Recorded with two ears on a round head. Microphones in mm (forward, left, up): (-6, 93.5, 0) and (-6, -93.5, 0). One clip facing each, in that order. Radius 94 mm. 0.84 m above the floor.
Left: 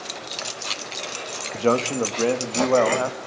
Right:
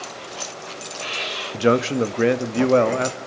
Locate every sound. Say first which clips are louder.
1.5 s a man speaking: right 3 dB; 15° right (ahead or behind), 0.9 m; by 3.2 s 25° right (ahead or behind), 1.7 m